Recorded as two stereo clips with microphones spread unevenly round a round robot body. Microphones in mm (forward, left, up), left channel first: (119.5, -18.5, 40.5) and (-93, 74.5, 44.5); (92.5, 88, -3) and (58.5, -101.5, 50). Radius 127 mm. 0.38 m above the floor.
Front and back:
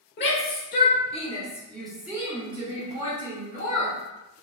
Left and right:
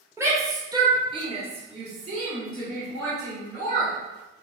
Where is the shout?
15° right, 1.2 m; by 4.0 s 170° right, 1.4 m.